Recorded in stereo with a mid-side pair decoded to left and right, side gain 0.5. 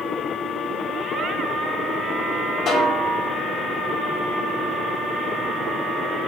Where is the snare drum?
60° left, 5 m.